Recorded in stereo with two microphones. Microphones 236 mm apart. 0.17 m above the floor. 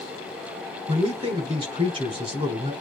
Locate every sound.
0.9 s a man speaking: 20° right (ahead or behind), 1.1 m